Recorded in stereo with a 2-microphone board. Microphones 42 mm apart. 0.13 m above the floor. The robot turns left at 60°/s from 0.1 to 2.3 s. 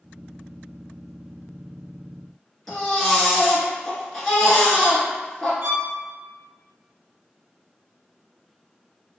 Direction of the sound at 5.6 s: 60° right (ahead or behind).